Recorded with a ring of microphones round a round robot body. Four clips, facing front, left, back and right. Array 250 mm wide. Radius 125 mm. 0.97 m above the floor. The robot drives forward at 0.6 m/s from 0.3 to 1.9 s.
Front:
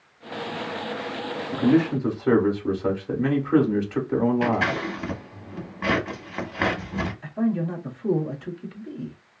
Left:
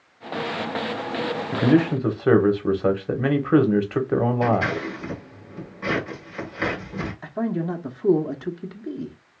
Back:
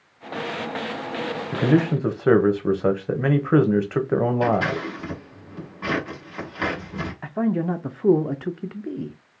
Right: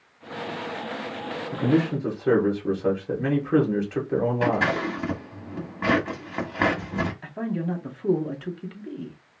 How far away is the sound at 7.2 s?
About 0.6 m.